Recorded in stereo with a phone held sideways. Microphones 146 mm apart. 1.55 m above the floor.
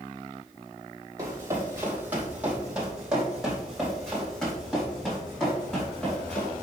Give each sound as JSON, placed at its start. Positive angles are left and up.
{"t": 1.2, "sound": "running footsteps", "side_deg": -20, "distance_m": 2.0}